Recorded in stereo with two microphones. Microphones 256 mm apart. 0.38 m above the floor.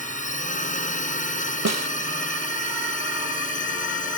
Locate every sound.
0.0 s a drone: 30° left (ahead or behind)
1.6 s a snare drum: 75° right (ahead or behind)